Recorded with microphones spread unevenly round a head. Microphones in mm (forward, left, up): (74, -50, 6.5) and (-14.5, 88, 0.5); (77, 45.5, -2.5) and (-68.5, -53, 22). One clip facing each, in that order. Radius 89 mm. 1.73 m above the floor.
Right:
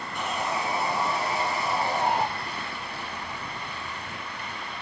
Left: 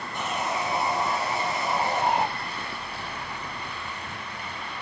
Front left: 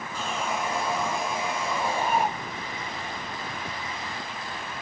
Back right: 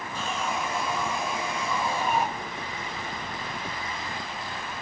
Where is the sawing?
55° left, 9 m.